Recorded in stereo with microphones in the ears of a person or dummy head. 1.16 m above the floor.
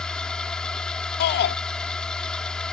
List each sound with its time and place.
0.0 s a machine running: 10° left (ahead or behind)
1.2 s a shout: 60° left (ahead or behind)